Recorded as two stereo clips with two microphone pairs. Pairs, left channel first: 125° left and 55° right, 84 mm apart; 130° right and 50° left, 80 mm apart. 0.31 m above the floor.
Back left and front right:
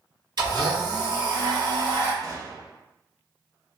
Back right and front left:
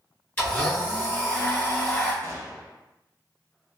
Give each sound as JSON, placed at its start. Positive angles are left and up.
{"t": 0.4, "sound": "a blender", "azimuth_deg": -60, "distance_m": 1.4}
{"t": 2.2, "sound": "a gunshot", "azimuth_deg": -5, "distance_m": 0.5}